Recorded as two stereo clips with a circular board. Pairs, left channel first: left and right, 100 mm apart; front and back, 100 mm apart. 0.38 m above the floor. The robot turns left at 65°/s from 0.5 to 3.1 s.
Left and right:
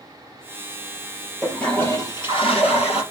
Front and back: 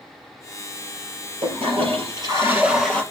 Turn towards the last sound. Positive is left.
turn(degrees=75)